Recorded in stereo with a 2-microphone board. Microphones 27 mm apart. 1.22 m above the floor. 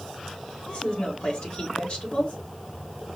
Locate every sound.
0.7 s a woman speaking: 40° left (ahead or behind), 1.9 m